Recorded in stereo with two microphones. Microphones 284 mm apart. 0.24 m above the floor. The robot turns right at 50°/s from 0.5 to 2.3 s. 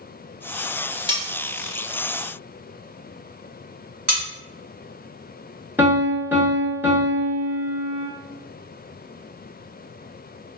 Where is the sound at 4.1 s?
55° right (ahead or behind), 1.4 m.